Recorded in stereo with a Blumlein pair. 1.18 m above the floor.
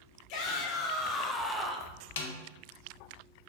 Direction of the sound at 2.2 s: 60° left.